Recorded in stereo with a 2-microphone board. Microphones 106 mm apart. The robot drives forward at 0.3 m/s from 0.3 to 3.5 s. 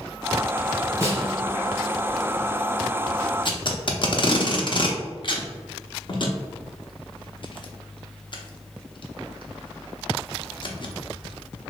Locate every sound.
1.0 s a snare drum: 25° right (ahead or behind), 1.8 m
3.5 s tape being pulled: 45° left (ahead or behind), 0.6 m